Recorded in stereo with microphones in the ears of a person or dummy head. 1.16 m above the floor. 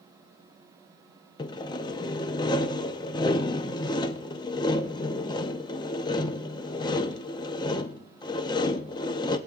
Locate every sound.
1.4 s sawing: 25° left (ahead or behind), 0.5 m